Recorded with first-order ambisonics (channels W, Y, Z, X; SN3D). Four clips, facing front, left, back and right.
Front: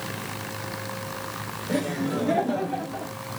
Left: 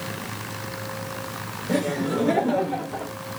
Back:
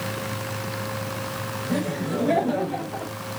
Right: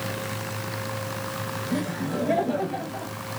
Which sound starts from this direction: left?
Laughter, at 1.7 s.